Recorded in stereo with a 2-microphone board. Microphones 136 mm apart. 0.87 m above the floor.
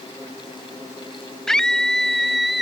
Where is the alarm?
No alarm in this recording.